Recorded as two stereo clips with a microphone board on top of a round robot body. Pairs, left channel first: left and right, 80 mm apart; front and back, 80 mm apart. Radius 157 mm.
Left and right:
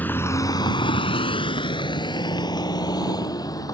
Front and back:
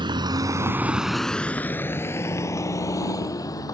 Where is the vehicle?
160° left; by 3.7 s 45° left.